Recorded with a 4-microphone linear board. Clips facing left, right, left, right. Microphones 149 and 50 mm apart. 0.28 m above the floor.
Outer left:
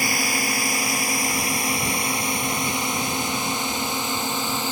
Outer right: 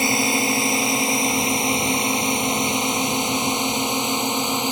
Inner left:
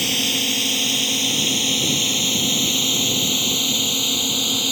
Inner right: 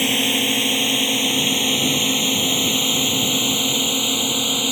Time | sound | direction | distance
0.0 | a drone | 25° right (ahead or behind) | ?